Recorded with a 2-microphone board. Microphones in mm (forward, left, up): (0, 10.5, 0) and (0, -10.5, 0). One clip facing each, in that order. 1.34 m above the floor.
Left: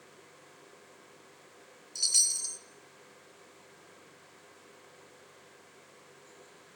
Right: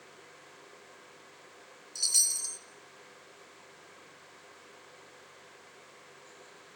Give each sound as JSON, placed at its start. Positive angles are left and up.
{"t": 1.9, "sound": "a chime", "side_deg": 5, "distance_m": 1.2}